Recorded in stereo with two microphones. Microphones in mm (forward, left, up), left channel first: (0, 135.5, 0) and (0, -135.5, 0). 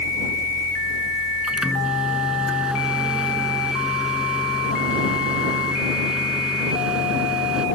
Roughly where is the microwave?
Centre.